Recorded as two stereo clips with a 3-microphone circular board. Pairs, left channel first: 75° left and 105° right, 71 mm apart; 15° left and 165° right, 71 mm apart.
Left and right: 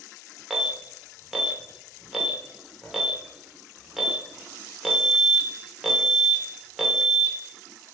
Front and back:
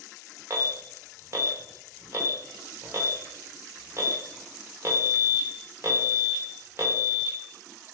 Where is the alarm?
170° left, 0.6 m.